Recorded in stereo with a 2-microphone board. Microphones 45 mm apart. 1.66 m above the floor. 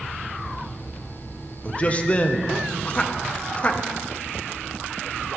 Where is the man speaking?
30° left (ahead or behind), 0.7 m.